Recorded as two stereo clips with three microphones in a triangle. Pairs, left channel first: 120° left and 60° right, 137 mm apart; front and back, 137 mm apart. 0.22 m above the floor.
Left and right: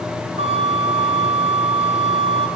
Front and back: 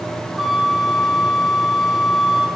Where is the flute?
95° right, 2 m.